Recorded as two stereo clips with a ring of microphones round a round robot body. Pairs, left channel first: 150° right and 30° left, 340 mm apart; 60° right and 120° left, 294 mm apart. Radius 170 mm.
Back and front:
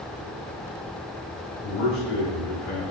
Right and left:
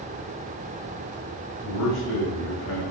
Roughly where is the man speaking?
Right.